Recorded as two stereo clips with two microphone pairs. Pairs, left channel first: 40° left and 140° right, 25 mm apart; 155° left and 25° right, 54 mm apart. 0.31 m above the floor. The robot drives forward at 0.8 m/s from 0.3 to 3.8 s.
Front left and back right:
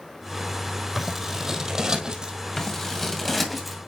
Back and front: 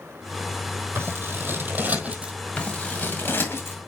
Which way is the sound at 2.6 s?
105° left.